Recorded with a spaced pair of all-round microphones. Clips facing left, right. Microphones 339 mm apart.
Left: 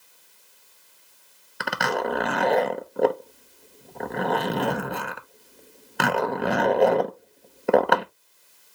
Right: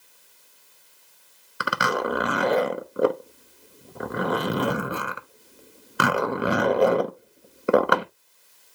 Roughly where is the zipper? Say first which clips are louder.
Even; centre.